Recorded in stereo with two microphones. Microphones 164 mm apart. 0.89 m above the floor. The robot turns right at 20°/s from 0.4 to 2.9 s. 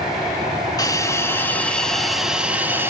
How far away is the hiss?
About 1.7 m.